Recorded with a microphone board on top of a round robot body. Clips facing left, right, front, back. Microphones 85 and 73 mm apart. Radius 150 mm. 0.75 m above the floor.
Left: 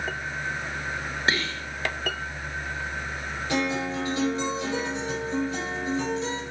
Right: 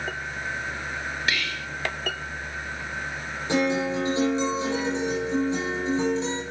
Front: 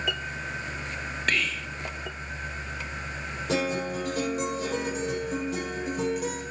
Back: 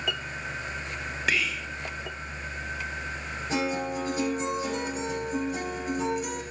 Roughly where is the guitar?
Ahead right.